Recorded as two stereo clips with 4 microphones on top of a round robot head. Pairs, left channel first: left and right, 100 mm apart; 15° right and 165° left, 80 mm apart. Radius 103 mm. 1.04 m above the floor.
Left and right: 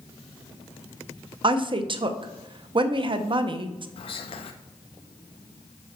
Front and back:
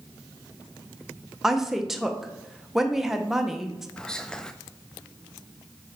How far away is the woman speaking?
About 0.7 m.